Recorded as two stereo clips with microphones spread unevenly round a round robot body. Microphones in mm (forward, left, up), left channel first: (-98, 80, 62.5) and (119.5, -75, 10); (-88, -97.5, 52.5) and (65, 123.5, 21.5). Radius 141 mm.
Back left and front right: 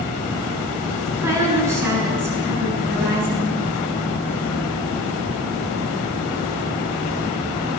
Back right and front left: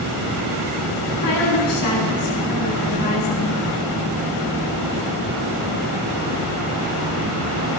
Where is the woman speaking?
115° right, 7.5 m.